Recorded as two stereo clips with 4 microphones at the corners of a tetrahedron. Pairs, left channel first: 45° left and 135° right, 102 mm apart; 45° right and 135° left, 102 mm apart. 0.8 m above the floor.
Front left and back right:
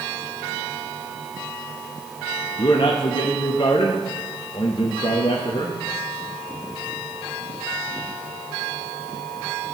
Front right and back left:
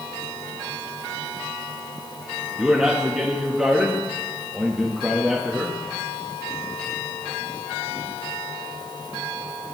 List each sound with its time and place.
2.6 s a man speaking: 50° left, 0.6 m